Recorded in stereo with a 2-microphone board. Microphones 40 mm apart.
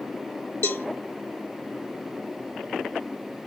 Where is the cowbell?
70° left (ahead or behind), 0.7 m.